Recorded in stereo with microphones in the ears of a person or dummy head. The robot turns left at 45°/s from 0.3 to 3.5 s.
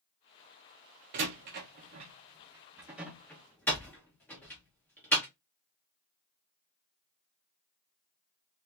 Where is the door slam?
40° right (ahead or behind), 0.6 m; by 5.3 s 10° left (ahead or behind), 0.6 m.